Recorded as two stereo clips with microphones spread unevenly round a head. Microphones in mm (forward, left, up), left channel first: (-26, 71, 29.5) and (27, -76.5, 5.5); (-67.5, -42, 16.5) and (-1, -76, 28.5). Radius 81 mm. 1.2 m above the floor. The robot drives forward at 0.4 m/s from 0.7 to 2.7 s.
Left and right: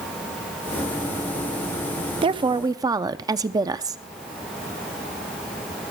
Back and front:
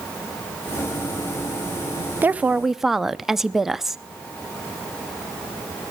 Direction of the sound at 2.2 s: 95° right.